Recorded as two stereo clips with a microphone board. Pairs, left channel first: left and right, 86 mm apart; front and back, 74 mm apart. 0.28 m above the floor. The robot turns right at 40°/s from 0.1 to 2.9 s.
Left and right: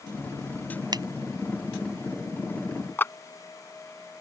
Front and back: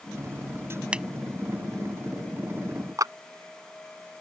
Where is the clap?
155° left.